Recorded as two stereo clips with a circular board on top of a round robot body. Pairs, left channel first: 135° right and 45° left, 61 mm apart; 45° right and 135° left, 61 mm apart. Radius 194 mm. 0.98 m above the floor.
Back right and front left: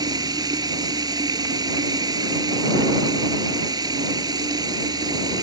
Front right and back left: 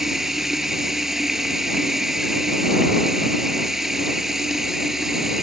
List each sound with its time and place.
0.0 s running water: 50° left